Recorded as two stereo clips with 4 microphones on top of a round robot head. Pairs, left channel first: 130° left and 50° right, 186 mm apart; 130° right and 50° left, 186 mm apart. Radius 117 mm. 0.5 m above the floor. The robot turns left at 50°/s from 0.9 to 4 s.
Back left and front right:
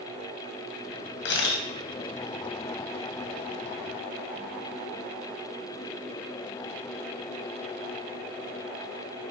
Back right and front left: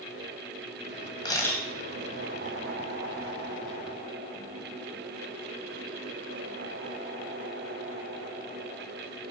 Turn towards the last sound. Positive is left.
turn(degrees=25)